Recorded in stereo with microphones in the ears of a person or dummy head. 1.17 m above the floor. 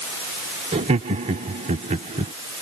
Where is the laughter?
35° right (ahead or behind).